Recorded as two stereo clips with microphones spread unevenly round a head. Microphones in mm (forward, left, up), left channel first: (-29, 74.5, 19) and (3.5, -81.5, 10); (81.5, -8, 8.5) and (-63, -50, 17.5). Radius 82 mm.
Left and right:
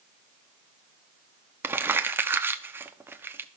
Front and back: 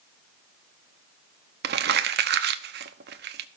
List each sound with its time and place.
1.6 s crumpling: 155° right, 0.9 m